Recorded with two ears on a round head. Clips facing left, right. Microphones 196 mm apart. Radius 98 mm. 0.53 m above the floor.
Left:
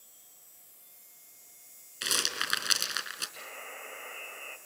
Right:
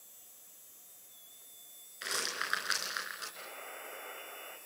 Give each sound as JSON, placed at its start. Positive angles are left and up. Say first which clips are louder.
{"t": 2.0, "sound": "a rattle", "louder": "left 3 dB", "side_deg": 55, "distance_m": 3.5}
{"t": 3.4, "sound": "a buzzer", "louder": "left 1 dB", "side_deg": 55, "distance_m": 3.5}